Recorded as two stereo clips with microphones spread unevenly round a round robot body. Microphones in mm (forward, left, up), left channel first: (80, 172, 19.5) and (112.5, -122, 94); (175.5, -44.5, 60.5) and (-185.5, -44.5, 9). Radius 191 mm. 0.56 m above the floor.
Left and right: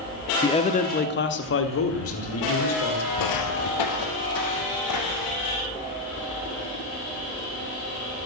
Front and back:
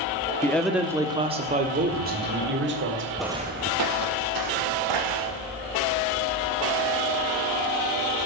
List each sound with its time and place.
0.4 s a man speaking: 90° left, 0.8 m; by 3.0 s 125° left, 2 m
3.2 s footsteps: 80° left, 0.7 m; by 5.5 s 150° left, 3 m